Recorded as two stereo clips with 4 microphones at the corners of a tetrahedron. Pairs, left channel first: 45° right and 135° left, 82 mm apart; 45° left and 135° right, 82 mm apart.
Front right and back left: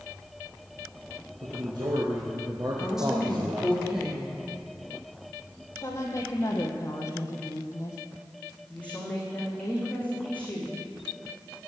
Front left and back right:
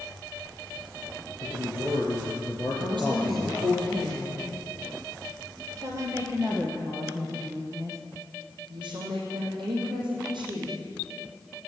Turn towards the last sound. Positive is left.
turn(degrees=-120)